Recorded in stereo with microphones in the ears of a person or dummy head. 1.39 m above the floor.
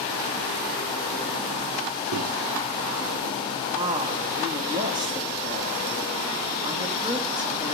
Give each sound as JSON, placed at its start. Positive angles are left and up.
{"t": 2.1, "sound": "a microwave", "side_deg": -70, "distance_m": 0.8}
{"t": 3.8, "sound": "a woman speaking", "side_deg": -15, "distance_m": 3.0}